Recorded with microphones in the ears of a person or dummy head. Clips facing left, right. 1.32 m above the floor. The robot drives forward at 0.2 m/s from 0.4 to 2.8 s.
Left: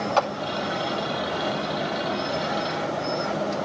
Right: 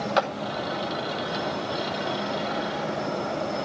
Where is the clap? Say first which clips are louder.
Left 1 dB; 20° right (ahead or behind), 1.2 m.